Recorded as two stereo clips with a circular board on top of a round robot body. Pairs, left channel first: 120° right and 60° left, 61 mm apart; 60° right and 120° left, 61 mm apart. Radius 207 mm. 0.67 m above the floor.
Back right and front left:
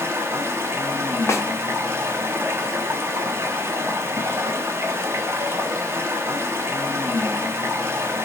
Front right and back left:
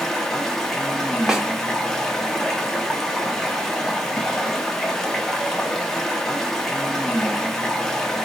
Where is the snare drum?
160° right, 1.0 m.